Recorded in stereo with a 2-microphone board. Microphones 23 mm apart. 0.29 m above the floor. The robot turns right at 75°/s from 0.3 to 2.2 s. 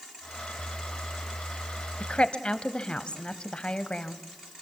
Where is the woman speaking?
45° left (ahead or behind), 1.3 m.